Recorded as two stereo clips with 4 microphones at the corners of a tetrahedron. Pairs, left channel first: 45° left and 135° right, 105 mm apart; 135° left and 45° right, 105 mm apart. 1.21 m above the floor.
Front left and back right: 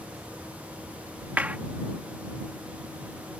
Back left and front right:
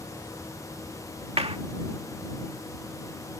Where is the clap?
60° right.